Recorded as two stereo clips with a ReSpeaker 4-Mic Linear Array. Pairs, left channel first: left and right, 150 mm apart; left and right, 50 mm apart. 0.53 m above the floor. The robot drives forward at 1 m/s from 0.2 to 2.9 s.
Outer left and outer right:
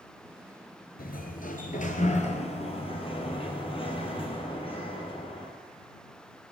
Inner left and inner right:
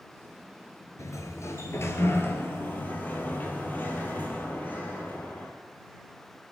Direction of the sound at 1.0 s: 80° left.